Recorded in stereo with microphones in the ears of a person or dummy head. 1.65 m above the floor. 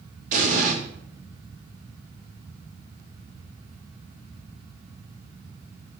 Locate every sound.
0.3 s an explosion: 45° right (ahead or behind), 4 m